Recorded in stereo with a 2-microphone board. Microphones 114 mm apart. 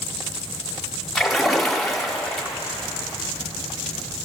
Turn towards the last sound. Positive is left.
turn(degrees=0)  # may be behind; listen again after turning